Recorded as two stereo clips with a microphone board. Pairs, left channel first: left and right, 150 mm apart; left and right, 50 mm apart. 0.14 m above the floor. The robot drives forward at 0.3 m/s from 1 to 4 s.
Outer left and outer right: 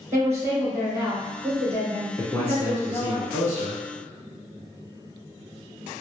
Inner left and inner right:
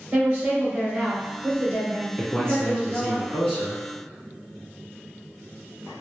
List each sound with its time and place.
0.1 s a woman speaking: 20° right (ahead or behind), 1.3 m
2.2 s a man speaking: 20° left (ahead or behind), 1.2 m